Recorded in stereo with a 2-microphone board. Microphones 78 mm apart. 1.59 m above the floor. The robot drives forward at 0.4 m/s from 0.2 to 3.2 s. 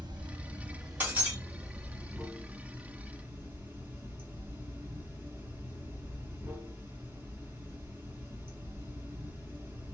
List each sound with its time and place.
0.0 s running water: 65° right (ahead or behind), 0.8 m; by 9.9 s 25° right (ahead or behind), 1.6 m
1.0 s breaking glass: 20° right (ahead or behind), 1.3 m; by 1.4 s 25° right (ahead or behind), 1.2 m